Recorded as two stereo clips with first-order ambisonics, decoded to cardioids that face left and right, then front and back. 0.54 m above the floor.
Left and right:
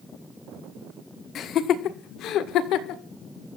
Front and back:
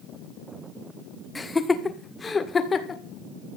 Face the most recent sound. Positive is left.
turn(degrees=65)